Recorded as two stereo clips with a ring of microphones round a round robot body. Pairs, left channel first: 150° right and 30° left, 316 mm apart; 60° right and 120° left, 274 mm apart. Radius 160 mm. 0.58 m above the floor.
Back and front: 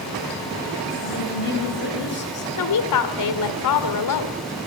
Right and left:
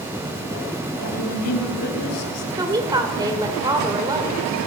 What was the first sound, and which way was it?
A woman speaking, 95° right.